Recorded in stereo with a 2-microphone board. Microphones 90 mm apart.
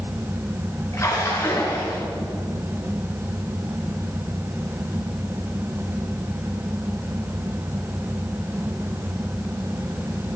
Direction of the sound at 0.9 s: 35° left (ahead or behind).